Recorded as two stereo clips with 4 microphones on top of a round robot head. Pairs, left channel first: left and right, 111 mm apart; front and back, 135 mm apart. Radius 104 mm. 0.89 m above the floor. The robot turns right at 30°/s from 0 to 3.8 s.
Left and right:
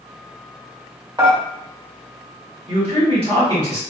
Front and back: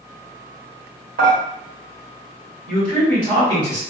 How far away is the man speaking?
About 1.6 m.